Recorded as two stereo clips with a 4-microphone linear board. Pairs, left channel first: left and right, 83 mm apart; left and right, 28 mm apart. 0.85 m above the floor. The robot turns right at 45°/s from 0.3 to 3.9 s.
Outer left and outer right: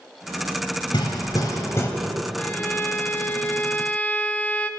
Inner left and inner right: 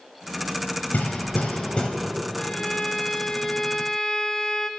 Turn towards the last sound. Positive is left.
turn(degrees=20)  # may be behind; listen again after turning